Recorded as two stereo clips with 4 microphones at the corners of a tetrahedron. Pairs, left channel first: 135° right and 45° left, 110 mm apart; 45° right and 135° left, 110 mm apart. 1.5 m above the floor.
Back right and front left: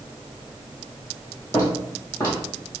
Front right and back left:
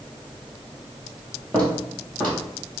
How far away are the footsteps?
About 1.6 m.